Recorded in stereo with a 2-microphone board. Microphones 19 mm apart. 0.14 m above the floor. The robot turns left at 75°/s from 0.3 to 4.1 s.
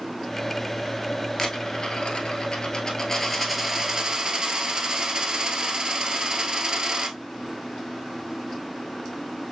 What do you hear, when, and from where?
1.4 s a dropped coin: 150° left, 1.1 m; by 7.2 s 55° right, 1.1 m